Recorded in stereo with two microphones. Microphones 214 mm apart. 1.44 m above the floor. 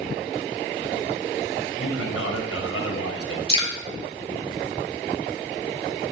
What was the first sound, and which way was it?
A man speaking, 80° left.